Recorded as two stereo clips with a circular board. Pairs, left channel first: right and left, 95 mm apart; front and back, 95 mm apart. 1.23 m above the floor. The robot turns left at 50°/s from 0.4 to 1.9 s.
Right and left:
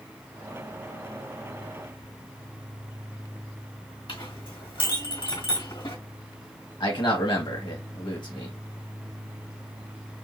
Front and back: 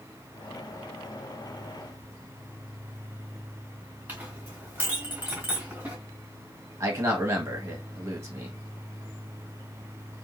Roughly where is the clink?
Right.